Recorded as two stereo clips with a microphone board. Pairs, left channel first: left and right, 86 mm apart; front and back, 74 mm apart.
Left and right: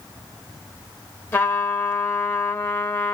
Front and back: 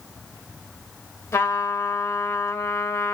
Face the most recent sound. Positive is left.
turn(degrees=40)